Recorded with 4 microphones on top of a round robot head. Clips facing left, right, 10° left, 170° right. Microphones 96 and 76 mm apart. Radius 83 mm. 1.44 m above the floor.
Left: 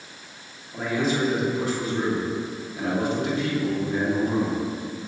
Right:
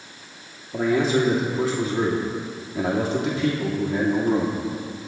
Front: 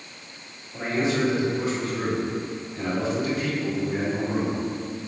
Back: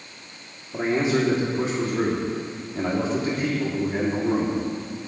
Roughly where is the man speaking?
Right.